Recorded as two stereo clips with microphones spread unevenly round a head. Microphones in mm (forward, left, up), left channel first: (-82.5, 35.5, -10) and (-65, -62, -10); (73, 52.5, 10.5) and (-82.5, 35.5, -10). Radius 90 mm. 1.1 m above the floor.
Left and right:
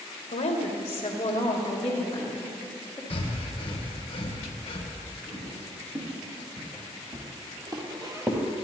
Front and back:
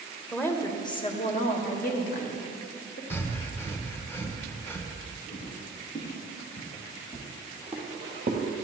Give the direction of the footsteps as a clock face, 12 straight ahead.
1 o'clock.